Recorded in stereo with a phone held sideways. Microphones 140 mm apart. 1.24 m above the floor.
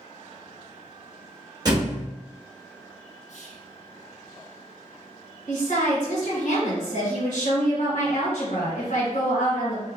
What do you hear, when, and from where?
1.6 s a thud: 30° right (ahead or behind), 1.0 m
3.3 s whispering: 60° left (ahead or behind), 0.8 m
5.5 s a woman speaking: 70° left (ahead or behind), 1.4 m